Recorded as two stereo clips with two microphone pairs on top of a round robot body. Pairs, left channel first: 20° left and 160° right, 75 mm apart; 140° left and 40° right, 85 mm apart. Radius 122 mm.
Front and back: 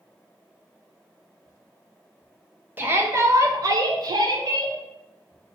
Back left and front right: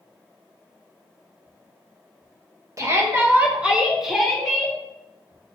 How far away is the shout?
About 1.5 m.